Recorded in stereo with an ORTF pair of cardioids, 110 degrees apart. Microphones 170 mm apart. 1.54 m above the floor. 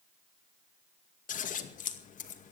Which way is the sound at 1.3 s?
50° left.